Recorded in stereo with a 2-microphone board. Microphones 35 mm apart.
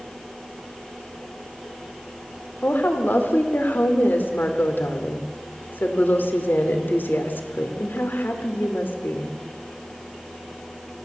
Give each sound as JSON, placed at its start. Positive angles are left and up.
{"t": 2.6, "sound": "a woman speaking", "side_deg": 70, "distance_m": 3.0}